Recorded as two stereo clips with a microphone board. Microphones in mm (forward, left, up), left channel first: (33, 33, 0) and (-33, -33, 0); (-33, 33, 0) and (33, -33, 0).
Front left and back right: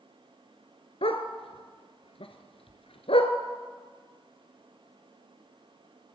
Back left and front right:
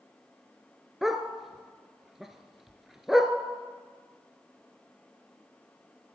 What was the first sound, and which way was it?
A dog barking, 40° left.